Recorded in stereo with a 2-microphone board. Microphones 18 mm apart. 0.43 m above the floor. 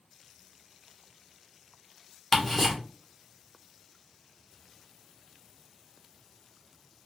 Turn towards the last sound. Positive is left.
turn(degrees=10)  # may be behind; listen again after turning